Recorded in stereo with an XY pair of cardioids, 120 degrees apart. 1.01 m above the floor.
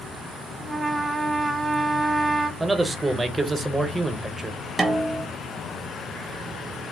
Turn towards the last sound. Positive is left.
turn(degrees=-20)